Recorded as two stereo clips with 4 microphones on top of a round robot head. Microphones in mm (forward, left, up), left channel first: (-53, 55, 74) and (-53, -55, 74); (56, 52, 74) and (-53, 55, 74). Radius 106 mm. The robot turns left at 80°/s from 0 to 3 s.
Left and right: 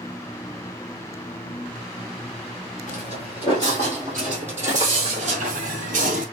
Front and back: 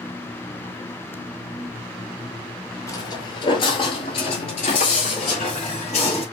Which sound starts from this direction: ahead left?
Footsteps, at 2.9 s.